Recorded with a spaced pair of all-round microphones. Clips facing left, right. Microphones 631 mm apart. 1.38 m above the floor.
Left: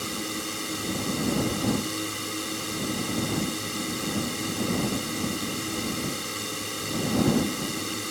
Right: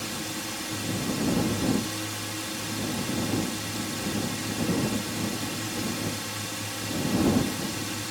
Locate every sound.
0.0 s a drone: 20° right (ahead or behind)